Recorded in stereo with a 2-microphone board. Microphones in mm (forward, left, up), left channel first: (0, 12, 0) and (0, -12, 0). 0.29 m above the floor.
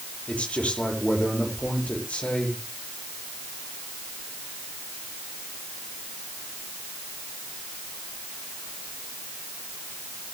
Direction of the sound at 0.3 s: 80° left.